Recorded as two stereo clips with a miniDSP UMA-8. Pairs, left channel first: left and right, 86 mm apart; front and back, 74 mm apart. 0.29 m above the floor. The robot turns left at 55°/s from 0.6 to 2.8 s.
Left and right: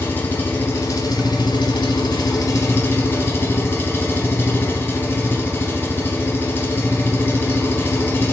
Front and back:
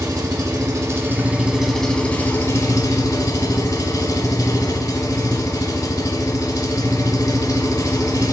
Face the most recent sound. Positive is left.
turn(degrees=30)